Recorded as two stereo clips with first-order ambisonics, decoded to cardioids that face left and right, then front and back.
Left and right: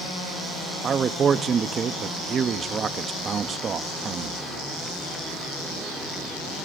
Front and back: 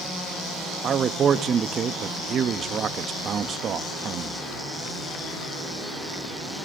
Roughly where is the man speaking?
Behind right.